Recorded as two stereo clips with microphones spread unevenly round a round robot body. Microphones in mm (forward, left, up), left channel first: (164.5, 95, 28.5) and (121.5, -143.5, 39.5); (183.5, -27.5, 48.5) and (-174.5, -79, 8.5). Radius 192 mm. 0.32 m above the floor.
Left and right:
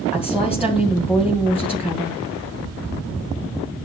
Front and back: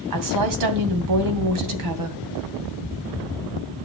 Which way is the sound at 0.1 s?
175° left.